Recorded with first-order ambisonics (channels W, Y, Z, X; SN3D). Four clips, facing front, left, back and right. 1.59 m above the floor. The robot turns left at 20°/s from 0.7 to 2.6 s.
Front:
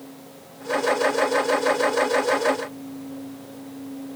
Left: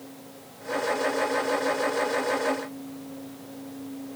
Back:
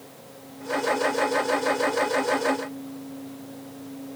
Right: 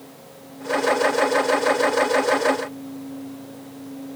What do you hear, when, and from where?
Only background noise.